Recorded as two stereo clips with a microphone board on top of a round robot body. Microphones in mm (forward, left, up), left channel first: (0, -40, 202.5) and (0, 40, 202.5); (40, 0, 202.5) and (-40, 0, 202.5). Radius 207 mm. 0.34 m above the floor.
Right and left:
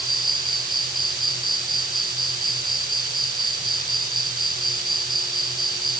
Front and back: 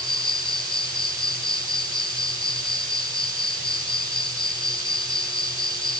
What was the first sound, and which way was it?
An insect, straight ahead.